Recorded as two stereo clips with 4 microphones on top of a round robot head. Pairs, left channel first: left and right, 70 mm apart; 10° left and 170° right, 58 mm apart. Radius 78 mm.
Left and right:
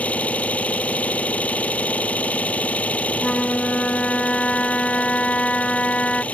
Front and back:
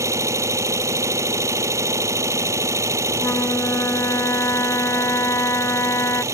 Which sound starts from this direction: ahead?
A flute, at 3.2 s.